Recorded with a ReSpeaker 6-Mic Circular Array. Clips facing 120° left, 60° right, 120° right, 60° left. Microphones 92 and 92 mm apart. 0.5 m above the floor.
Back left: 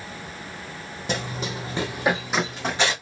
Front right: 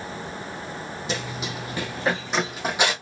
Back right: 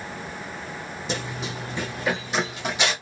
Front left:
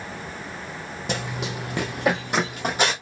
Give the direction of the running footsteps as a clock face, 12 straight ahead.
9 o'clock.